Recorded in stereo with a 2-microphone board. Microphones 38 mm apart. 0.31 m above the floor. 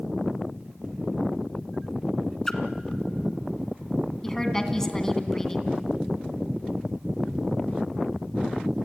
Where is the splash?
10° left (ahead or behind), 1.6 m.